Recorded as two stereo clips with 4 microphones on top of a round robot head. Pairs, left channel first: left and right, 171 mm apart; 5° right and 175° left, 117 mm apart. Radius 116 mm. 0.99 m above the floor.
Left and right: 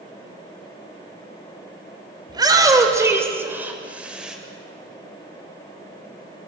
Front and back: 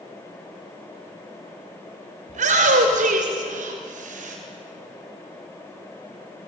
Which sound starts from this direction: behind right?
A shout, at 2.3 s.